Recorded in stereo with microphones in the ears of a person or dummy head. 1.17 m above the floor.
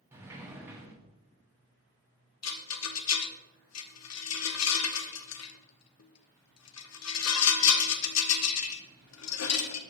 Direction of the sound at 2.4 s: 75° left (ahead or behind).